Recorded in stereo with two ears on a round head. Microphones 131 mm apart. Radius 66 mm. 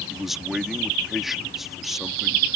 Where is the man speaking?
Centre (ahead or behind).